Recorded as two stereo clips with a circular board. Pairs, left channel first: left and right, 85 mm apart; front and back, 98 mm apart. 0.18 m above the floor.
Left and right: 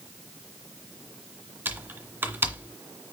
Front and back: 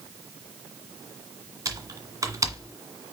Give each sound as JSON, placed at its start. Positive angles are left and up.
{"t": 1.6, "sound": "typing on a keyboard", "azimuth_deg": -145, "distance_m": 1.8}